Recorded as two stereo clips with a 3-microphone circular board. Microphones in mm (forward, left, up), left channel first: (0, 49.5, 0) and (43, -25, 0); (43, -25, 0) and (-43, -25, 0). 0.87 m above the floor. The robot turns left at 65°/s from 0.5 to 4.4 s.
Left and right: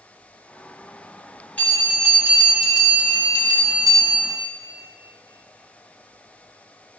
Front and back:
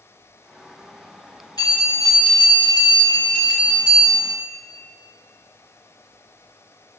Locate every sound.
1.6 s a bell: 45° left, 5 m; by 4.3 s 135° right, 5 m